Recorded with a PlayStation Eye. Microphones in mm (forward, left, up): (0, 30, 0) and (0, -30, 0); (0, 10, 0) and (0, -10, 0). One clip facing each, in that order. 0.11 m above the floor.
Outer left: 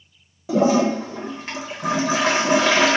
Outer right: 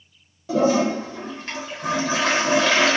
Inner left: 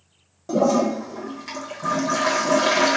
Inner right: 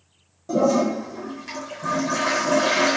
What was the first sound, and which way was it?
A toilet flushing, 15° left (ahead or behind).